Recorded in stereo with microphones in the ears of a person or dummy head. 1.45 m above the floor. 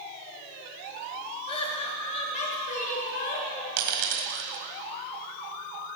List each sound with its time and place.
1.5 s laughter: 25° left (ahead or behind), 3 m; by 3.7 s 40° left (ahead or behind), 4 m
3.8 s a dropped coin: 45° right (ahead or behind), 1.7 m